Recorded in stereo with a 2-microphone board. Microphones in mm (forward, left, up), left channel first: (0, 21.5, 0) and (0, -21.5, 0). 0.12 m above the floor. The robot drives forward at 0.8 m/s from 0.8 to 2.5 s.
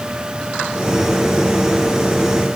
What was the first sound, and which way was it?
Only background noise.